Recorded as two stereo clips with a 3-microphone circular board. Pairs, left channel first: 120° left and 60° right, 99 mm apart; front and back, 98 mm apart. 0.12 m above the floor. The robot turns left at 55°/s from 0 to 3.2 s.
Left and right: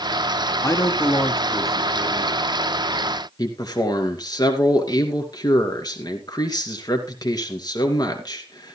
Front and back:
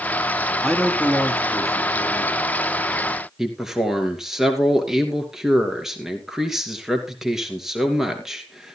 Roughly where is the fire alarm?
No fire alarm in this recording.